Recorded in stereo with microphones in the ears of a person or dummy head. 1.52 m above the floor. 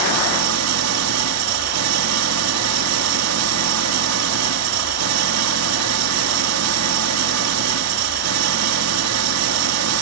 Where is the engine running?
90° right.